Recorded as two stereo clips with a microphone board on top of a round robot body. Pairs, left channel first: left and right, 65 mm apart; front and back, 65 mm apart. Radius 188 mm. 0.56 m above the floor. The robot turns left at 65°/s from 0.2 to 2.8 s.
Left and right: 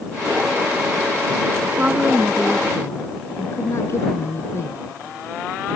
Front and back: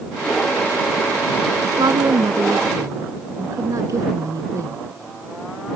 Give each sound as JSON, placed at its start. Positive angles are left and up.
{"t": 1.6, "sound": "a woman speaking", "azimuth_deg": -145}